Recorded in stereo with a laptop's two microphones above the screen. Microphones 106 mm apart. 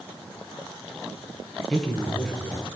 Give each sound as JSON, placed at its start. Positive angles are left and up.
{"t": 1.7, "sound": "a man speaking", "side_deg": 5, "distance_m": 1.0}